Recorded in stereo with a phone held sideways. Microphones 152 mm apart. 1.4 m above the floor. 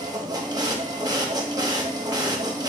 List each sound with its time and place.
0.0 s a machine running: 25° right (ahead or behind), 0.8 m